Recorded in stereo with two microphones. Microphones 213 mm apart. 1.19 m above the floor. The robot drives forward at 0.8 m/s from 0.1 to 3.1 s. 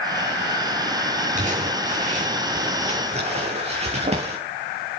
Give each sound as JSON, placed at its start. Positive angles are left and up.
{"t": 1.4, "sound": "crumpling", "side_deg": -35, "distance_m": 8.0}